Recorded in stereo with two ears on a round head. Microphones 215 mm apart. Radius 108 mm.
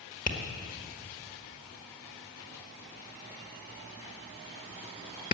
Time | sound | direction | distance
0.3 | tapping | 35° left (ahead or behind) | 1.4 m